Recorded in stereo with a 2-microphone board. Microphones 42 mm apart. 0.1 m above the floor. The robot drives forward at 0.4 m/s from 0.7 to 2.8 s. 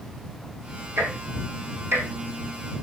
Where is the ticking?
65° right (ahead or behind), 3.5 m; by 2.1 s 70° right (ahead or behind), 3.5 m.